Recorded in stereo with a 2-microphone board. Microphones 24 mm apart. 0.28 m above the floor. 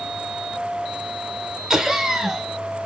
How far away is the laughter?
About 2 m.